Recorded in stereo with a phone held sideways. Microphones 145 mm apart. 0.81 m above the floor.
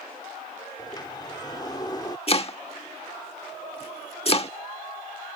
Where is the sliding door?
25° left (ahead or behind).